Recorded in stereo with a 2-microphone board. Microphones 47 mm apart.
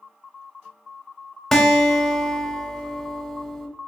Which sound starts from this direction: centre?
A guitar, at 1.5 s.